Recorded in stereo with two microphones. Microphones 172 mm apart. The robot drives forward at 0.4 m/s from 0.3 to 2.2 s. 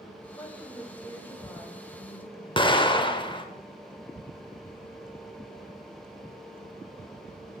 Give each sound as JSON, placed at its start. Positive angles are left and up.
{"t": 0.3, "sound": "a woman speaking", "side_deg": 15, "distance_m": 1.9}
{"t": 2.6, "sound": "an explosion", "side_deg": 30, "distance_m": 0.7}